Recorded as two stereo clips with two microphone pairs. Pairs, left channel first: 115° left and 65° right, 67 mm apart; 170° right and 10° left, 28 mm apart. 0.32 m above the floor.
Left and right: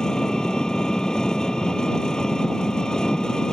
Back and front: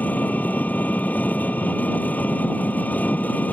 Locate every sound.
0.0 s an engine running: 165° right